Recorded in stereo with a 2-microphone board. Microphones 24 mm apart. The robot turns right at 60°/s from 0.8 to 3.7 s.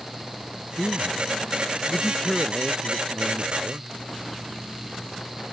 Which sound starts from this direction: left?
A man speaking, at 0.8 s.